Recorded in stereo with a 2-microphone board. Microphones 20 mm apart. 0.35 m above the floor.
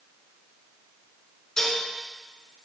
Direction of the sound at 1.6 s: 20° left (ahead or behind).